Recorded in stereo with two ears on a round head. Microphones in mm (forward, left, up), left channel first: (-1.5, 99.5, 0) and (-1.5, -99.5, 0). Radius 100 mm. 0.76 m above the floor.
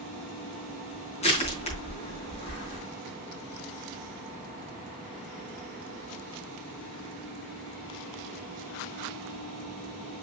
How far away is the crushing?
About 4 m.